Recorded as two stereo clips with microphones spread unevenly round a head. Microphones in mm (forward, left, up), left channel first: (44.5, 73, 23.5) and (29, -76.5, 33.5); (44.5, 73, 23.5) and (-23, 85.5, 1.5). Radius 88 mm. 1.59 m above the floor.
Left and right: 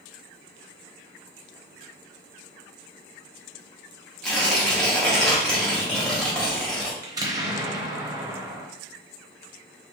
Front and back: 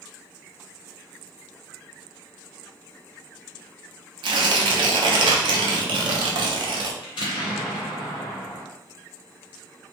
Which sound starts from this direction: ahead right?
An explosion, at 7.0 s.